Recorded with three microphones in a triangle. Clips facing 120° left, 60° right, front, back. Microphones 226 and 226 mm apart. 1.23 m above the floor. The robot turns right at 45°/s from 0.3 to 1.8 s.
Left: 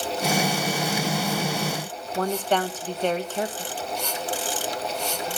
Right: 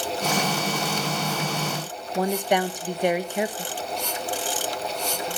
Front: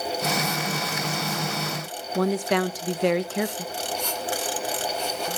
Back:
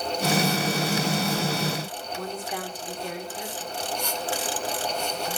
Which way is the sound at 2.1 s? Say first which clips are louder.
Right 1 dB, front 13 dB; 15° left.